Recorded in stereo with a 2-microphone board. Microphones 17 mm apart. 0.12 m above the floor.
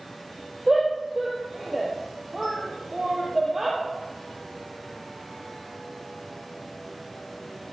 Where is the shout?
15° right (ahead or behind), 3 m.